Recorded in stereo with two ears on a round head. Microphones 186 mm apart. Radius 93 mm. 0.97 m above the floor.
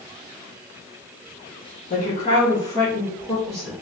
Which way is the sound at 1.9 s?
40° left (ahead or behind).